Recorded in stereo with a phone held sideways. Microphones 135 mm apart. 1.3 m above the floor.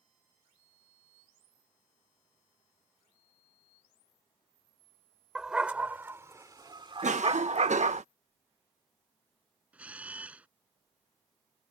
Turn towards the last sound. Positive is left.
turn(degrees=-10)  # may be behind; listen again after turning